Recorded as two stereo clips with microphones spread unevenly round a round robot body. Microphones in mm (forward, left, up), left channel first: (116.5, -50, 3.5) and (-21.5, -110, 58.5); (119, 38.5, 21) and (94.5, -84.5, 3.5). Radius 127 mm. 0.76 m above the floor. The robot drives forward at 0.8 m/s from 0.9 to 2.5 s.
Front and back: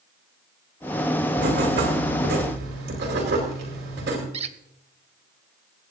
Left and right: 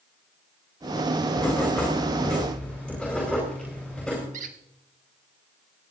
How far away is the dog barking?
I don't hear a dog barking.